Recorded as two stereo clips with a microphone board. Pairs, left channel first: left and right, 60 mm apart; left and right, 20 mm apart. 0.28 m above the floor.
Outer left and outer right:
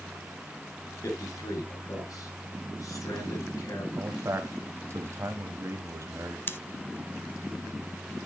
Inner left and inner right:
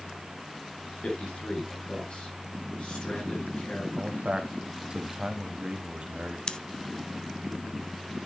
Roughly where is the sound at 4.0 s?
Right.